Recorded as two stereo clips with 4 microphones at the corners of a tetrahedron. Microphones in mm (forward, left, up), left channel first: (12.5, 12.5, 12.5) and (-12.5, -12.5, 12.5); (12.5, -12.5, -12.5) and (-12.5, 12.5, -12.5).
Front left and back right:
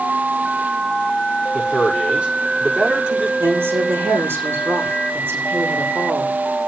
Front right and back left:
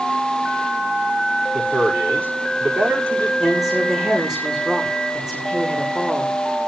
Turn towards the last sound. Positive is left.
turn(degrees=-150)